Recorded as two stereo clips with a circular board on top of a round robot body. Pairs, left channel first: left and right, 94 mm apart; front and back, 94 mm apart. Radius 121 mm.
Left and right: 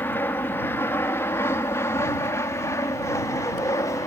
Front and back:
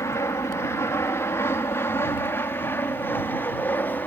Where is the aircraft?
35° left; by 4.1 s 60° left.